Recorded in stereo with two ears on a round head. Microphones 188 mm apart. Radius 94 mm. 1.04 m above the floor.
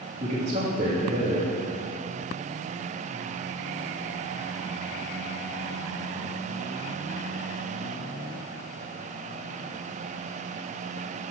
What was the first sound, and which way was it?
A man speaking, 35° right (ahead or behind).